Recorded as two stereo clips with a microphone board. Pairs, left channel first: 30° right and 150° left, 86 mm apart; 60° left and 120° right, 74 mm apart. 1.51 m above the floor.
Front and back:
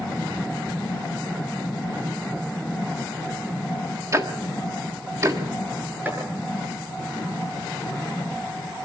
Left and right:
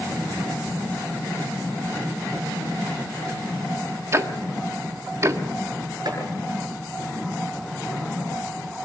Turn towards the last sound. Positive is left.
turn(degrees=-145)